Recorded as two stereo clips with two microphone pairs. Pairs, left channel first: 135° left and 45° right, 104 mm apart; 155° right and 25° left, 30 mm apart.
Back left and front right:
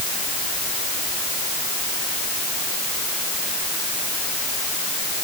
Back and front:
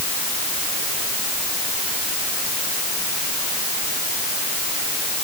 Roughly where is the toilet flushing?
No toilet flushing in this recording.